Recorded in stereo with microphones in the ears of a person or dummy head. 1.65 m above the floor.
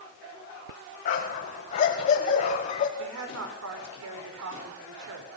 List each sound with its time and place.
1.1 s a dog barking: 50° left (ahead or behind), 4.5 m; by 2.9 s 45° left (ahead or behind), 3.5 m
3.0 s a woman speaking: 75° right (ahead or behind), 4.5 m